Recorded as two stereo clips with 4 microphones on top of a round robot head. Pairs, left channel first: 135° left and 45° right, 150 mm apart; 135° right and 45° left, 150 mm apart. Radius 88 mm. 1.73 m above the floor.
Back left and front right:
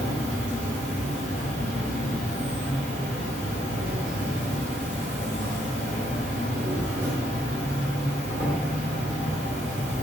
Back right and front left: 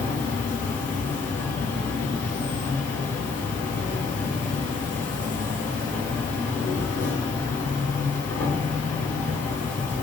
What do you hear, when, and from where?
0.0 s an insect: 125° right, 1.5 m